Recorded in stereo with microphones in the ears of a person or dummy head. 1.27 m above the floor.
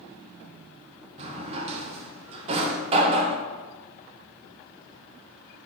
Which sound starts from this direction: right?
A drawer, at 1.2 s.